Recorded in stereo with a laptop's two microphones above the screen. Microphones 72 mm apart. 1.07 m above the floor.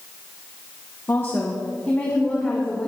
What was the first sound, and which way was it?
A woman speaking, 35° left (ahead or behind).